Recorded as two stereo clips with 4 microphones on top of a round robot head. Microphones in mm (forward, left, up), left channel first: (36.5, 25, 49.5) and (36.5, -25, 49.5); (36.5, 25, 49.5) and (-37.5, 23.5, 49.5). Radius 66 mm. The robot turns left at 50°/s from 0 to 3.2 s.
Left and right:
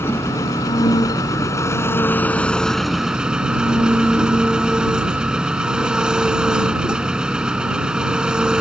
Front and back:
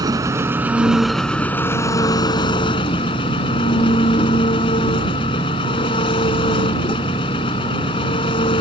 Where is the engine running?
145° left; by 8.6 s 15° right.